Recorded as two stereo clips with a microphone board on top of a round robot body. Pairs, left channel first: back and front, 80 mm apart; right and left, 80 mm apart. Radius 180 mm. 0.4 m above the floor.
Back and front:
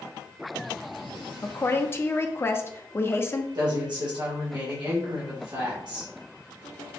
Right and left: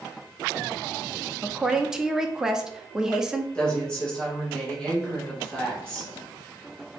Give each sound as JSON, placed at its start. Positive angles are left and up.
{"t": 1.4, "sound": "a woman speaking", "azimuth_deg": 170, "distance_m": 0.8}
{"t": 3.5, "sound": "a woman speaking", "azimuth_deg": -10, "distance_m": 2.0}